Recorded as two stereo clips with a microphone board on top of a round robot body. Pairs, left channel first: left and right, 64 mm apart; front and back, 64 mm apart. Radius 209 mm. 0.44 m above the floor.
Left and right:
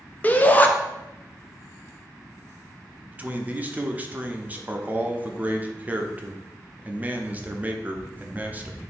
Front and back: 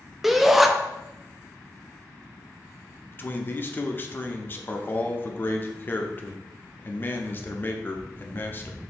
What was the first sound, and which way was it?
A shout, 100° left.